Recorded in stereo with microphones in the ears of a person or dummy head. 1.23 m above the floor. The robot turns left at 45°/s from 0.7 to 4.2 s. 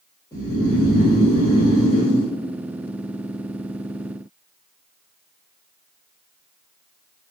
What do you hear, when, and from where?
0.3 s snoring: 165° left, 1.1 m; by 2.3 s 95° left, 1.1 m